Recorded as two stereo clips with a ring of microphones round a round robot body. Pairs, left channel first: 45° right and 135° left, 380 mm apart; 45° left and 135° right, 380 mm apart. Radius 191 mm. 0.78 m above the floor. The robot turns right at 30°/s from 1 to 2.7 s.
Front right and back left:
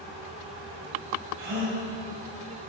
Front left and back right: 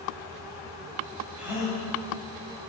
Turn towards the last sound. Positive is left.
turn(degrees=175)